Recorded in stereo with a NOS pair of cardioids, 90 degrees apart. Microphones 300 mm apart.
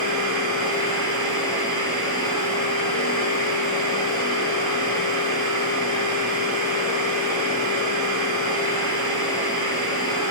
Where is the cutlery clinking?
No cutlery clinking in this recording.